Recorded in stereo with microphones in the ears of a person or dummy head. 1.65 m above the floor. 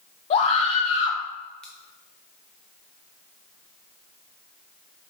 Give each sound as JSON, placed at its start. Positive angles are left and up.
{"t": 0.3, "sound": "a scream", "side_deg": 35, "distance_m": 0.8}
{"t": 1.6, "sound": "scissors", "side_deg": 5, "distance_m": 0.5}